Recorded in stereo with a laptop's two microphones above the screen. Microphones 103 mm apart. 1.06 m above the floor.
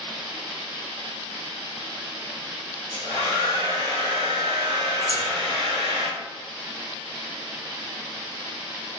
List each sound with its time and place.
2.9 s a hair dryer: 65° right (ahead or behind), 1.6 m
5.1 s scissors: 20° right (ahead or behind), 0.6 m